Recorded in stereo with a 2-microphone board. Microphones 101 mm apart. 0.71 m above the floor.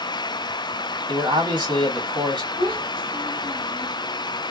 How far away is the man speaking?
About 1.6 m.